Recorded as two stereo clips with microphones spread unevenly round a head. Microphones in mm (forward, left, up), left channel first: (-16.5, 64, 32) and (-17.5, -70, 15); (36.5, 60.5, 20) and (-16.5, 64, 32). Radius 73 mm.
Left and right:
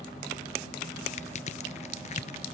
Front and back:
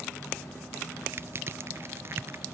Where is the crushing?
130° left, 0.7 m.